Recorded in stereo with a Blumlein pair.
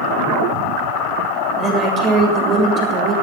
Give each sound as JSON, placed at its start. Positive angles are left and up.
{"t": 1.6, "sound": "a woman speaking", "azimuth_deg": -25, "distance_m": 7.0}